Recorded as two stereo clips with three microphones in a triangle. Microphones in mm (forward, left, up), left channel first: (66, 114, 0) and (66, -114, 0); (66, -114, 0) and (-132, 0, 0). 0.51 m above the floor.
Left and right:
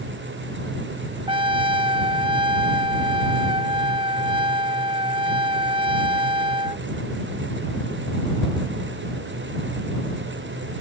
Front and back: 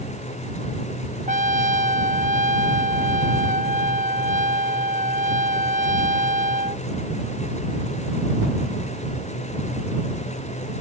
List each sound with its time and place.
1.3 s a trumpet: 155° right